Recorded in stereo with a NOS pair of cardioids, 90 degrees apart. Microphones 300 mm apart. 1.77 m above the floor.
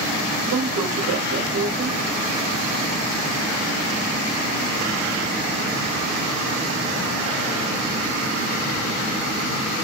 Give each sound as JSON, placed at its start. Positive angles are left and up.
{"t": 0.5, "sound": "a woman speaking", "azimuth_deg": -50, "distance_m": 1.2}